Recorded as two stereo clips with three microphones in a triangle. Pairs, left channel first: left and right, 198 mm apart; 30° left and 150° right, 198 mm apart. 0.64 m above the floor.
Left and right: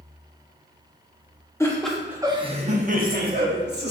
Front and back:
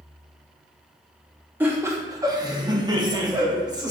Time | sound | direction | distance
1.6 | laughter | 145° left | 0.7 m